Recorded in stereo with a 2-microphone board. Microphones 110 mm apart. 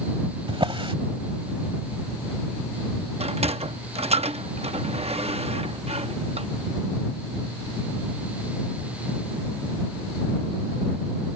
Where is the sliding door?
70° right (ahead or behind).